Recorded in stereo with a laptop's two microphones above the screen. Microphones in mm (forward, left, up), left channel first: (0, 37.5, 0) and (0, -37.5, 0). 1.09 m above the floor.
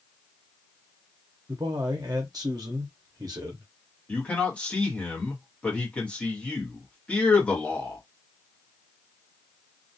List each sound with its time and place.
1.5 s a man speaking: 55° right (ahead or behind), 0.6 m
4.1 s a man speaking: 15° left (ahead or behind), 1.0 m